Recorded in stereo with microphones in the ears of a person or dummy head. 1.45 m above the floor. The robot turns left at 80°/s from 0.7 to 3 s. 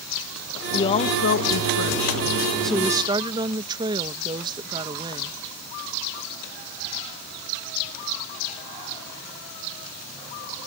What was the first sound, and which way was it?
A woman speaking, 160° left.